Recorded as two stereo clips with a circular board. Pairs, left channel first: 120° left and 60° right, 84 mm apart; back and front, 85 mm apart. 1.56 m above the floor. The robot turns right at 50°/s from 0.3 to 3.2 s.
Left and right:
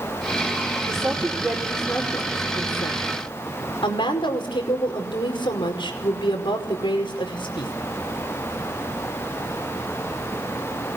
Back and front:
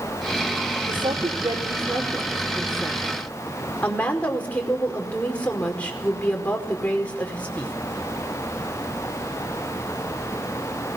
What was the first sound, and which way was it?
A woman speaking, 10° right.